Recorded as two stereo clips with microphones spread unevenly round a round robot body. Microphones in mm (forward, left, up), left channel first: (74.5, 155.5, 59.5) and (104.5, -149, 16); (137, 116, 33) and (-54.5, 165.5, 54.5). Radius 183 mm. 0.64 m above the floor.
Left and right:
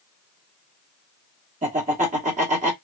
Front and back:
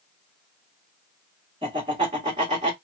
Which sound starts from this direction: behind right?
Laughter, at 1.6 s.